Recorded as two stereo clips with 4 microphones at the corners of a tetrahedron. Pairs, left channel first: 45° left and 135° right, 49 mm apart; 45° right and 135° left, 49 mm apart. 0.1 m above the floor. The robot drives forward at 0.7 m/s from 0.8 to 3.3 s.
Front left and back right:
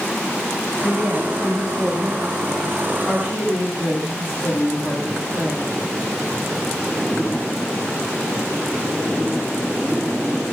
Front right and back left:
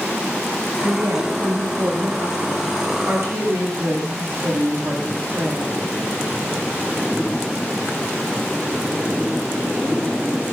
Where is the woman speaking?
140° left, 9 m; by 5.8 s 145° left, 10 m.